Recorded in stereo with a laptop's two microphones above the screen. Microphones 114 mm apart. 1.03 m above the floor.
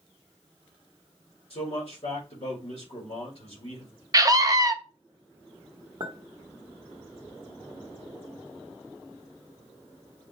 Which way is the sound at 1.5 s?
60° left (ahead or behind).